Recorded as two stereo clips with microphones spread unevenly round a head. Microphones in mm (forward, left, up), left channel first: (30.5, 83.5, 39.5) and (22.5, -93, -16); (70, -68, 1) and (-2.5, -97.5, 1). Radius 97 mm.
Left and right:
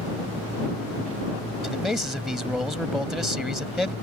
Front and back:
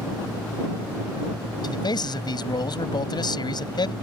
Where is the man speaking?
5° right.